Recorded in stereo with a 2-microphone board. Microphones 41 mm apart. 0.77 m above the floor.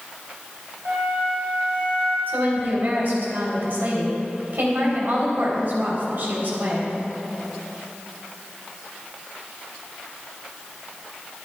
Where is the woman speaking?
60° right (ahead or behind), 3 m.